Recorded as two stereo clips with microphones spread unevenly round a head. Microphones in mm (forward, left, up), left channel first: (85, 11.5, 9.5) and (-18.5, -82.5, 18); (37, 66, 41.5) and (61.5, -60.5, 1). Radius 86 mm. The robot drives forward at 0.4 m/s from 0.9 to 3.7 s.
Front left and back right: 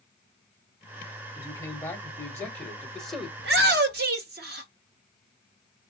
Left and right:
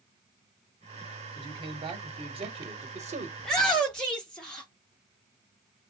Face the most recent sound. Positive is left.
turn(degrees=-170)